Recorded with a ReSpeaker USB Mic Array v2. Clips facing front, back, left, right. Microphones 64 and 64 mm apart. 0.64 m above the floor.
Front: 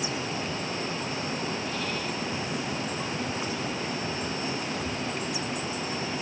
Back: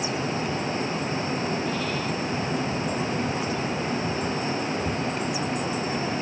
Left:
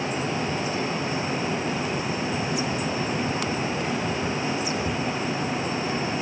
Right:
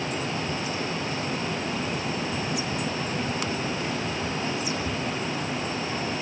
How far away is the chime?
No chime in this recording.